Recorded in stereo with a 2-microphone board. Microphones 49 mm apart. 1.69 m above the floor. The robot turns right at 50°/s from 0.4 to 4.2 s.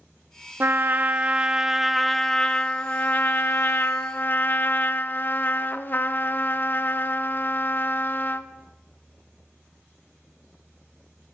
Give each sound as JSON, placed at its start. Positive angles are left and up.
{"t": 0.6, "sound": "a trumpet", "azimuth_deg": -70, "distance_m": 0.6}